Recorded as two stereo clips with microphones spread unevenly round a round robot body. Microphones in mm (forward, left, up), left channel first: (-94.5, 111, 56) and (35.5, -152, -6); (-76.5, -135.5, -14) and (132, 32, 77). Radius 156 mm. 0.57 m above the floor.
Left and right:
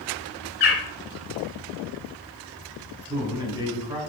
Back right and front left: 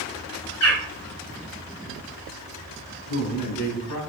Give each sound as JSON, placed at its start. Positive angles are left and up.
{"t": 0.6, "sound": "a bird", "azimuth_deg": 170, "distance_m": 4.0}
{"t": 3.1, "sound": "a man speaking", "azimuth_deg": -140, "distance_m": 4.0}